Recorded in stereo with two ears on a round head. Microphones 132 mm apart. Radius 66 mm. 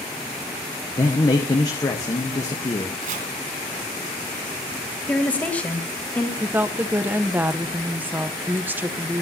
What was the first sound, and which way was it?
A man speaking, 25° left (ahead or behind).